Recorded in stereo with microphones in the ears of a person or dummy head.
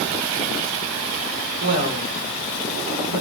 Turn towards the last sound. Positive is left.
turn(degrees=-55)  # may be behind; listen again after turning